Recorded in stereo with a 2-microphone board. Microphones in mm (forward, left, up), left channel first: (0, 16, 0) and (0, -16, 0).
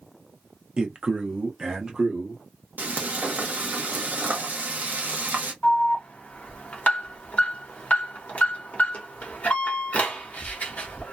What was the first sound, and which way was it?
A man speaking, 25° right (ahead or behind).